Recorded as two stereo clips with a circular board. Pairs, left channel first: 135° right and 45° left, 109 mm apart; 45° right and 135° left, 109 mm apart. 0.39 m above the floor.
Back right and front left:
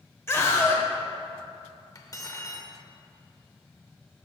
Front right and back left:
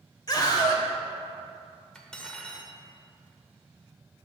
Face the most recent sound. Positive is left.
turn(degrees=-125)